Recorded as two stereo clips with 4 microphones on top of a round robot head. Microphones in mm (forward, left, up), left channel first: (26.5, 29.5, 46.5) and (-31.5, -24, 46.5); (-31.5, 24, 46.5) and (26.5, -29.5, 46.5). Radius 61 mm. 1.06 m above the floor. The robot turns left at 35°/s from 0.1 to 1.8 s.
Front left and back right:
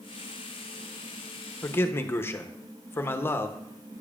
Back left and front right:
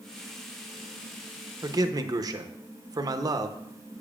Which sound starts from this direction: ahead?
A man speaking, at 1.6 s.